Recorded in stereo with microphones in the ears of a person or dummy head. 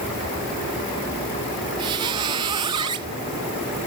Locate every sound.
1.8 s a squeak: 25° right (ahead or behind), 0.8 m